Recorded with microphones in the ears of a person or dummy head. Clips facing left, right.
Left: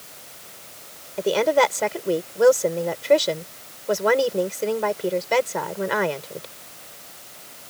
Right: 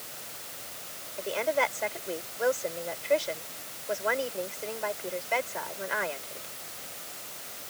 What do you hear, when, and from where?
1.2 s a woman speaking: 80° left